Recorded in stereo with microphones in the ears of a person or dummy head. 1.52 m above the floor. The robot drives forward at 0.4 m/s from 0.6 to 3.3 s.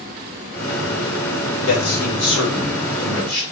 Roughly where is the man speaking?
Left.